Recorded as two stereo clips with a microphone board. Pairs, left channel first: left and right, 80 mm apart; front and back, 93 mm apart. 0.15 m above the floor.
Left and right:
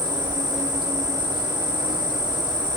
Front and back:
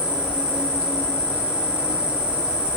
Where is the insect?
105° right, 4 m.